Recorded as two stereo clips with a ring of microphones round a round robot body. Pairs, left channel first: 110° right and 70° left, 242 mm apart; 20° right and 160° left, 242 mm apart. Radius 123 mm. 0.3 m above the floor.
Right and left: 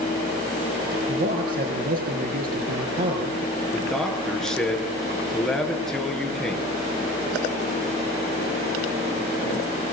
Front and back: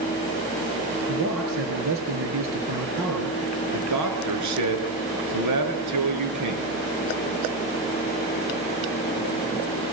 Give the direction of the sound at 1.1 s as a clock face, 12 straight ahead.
8 o'clock.